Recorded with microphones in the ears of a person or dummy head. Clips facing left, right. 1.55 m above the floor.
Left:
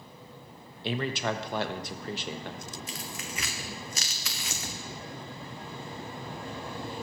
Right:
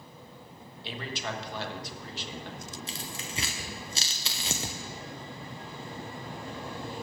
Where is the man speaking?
50° left (ahead or behind), 1.1 m.